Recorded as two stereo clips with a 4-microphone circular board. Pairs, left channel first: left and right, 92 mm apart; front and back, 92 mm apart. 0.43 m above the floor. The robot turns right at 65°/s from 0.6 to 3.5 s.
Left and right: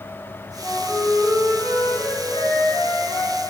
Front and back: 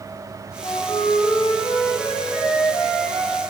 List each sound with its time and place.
0.6 s a flute: 15° right, 4.5 m; by 3.4 s 165° left, 4.5 m